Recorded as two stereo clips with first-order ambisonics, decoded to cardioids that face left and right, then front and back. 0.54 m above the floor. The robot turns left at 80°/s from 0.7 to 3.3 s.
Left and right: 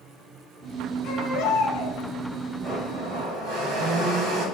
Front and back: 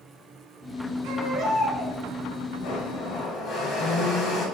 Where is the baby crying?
140° left, 4 m; by 2.0 s 65° left, 4 m.